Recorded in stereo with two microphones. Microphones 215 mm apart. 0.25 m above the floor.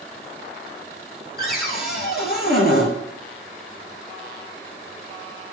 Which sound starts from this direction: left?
A cupboard door, at 1.4 s.